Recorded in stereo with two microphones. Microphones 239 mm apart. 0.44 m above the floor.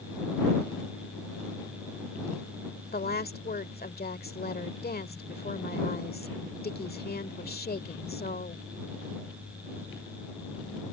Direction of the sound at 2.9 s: 45° left (ahead or behind).